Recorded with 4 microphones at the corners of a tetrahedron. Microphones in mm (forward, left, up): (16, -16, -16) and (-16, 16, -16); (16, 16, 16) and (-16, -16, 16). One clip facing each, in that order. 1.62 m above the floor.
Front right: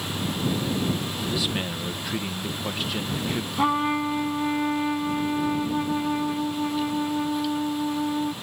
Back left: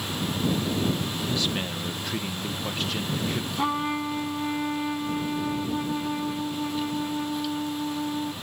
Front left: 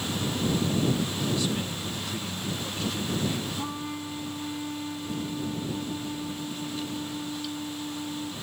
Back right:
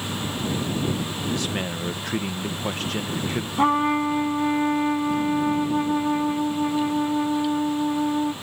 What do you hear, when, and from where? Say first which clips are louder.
1.3 s a man speaking: front right 2 dB, back right 2 dB; 125° right
3.6 s a trumpet: front right 5 dB, back right 14 dB; 115° right